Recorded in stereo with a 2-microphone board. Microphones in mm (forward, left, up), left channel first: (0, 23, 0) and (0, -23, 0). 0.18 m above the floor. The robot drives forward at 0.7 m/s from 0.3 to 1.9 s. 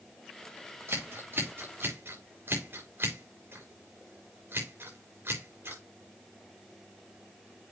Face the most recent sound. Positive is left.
turn(degrees=-50)  # may be behind; listen again after turning